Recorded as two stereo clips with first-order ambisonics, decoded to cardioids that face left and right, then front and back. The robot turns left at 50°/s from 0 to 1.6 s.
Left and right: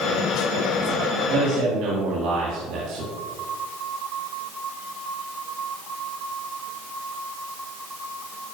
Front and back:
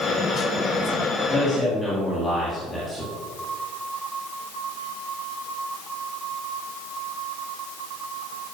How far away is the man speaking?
About 1.8 m.